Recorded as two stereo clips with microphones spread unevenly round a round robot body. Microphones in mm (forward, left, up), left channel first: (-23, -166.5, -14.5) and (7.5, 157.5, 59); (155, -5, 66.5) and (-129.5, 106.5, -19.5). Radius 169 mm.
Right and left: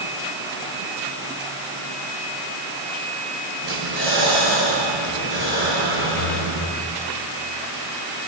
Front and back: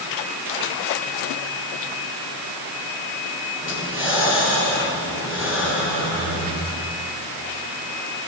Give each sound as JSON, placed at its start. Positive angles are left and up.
{"t": 3.6, "sound": "breathing", "azimuth_deg": 70, "distance_m": 8.5}